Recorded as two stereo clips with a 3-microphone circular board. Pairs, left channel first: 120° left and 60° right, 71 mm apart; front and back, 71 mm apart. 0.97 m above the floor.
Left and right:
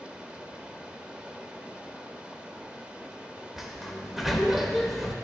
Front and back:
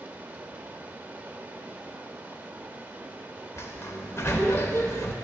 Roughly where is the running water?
Behind right.